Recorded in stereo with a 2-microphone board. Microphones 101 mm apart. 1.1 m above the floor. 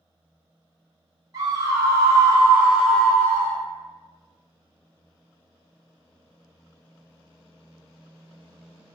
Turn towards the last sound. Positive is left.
turn(degrees=30)  # may be behind; listen again after turning